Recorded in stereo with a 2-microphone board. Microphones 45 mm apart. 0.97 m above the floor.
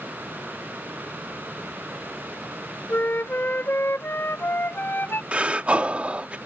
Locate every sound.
2.9 s a flute: 55° left (ahead or behind)
5.3 s breathing: 30° right (ahead or behind)